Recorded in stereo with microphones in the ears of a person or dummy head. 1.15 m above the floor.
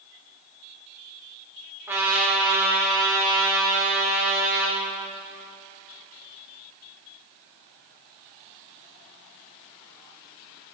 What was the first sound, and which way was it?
A trumpet, 10° right (ahead or behind).